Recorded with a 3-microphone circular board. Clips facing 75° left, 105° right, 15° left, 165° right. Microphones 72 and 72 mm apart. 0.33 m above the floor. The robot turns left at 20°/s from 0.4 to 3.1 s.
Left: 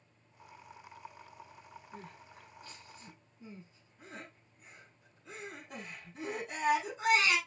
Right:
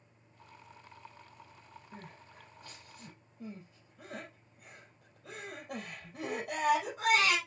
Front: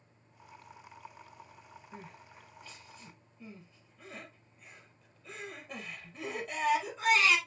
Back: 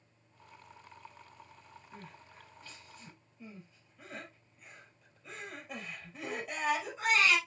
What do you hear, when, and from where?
1.9 s crying: 55° right, 4.5 m; by 7.4 s 75° right, 4.5 m